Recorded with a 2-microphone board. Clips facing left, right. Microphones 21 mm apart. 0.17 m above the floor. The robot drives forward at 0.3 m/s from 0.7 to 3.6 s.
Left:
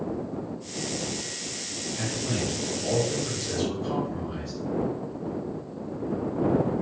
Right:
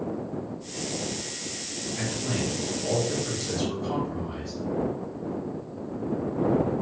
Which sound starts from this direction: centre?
A man speaking, at 2.0 s.